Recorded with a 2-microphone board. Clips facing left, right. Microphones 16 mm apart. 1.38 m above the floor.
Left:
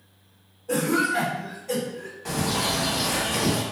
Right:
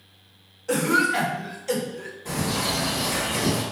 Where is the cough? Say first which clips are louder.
Right 2 dB; 70° right (ahead or behind), 0.7 m.